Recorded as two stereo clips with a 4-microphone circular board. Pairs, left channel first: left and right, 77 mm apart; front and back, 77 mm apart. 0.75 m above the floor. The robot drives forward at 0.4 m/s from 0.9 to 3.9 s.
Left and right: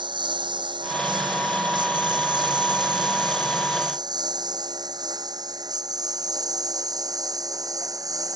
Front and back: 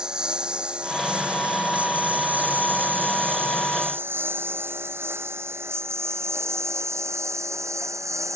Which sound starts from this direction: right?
A lawn mower, at 0.0 s.